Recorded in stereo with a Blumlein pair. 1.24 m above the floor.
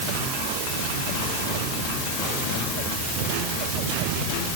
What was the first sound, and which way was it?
Only background noise.